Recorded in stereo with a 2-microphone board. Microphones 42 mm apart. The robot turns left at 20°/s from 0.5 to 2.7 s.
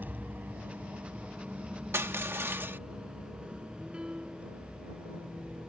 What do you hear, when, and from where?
0.0 s a vehicle: 45° right (ahead or behind); by 5.7 s 35° right (ahead or behind)
1.9 s crushing: 75° right (ahead or behind); by 2.8 s 60° right (ahead or behind)
3.9 s a piano: 20° right (ahead or behind)